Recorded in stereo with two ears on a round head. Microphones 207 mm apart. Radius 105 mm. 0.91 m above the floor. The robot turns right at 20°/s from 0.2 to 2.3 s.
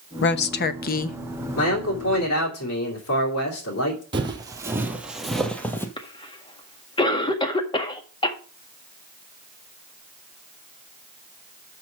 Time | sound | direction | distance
0.2 | a woman speaking | 50° left (ahead or behind) | 0.8 m
1.6 | a man speaking | 65° left (ahead or behind) | 3 m
4.1 | footsteps | 20° right (ahead or behind) | 1.6 m
6.0 | a cough | 20° left (ahead or behind) | 1.7 m